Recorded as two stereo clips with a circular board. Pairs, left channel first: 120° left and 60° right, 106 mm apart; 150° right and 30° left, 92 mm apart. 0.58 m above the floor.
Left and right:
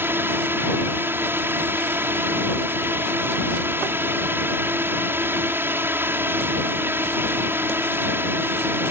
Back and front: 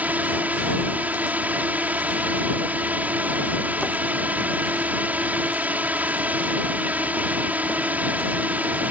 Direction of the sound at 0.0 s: 20° right.